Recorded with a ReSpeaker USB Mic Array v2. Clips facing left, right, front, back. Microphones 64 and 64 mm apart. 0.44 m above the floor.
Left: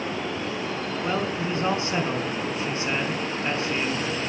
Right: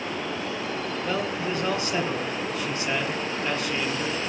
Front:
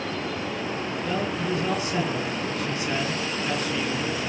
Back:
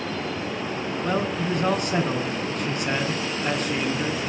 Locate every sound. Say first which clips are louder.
1.0 s a man speaking: left 2 dB, back 3 dB; 150° left, 5.5 m